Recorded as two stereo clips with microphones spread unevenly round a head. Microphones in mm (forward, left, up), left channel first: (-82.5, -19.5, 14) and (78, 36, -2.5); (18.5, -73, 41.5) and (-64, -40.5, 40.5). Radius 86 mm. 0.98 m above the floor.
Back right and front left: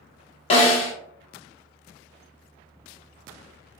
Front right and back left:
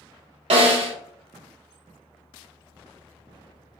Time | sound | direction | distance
0.5 | a snare drum | 140° left | 1.1 m